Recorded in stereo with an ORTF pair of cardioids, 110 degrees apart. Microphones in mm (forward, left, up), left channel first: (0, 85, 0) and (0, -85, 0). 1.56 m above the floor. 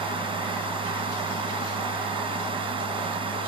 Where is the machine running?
30° right.